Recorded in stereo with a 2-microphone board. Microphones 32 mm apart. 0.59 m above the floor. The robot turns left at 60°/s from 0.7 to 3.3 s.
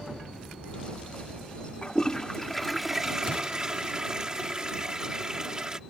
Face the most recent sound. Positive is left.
turn(degrees=-40)